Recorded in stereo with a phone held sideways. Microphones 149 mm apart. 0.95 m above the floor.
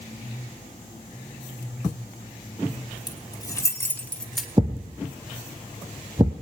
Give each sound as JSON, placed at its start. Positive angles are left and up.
{"t": 3.1, "sound": "keys jangling", "side_deg": 30, "distance_m": 3.0}
{"t": 4.6, "sound": "a thud", "side_deg": -30, "distance_m": 1.3}